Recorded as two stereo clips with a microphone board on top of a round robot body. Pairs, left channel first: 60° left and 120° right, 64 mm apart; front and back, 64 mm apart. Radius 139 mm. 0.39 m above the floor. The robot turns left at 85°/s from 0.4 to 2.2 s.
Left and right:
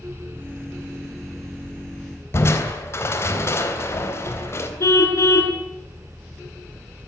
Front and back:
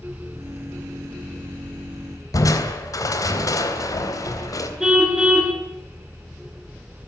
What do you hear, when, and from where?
2.3 s crushing: 15° left, 3.5 m
4.8 s a car horn: 100° left, 3.5 m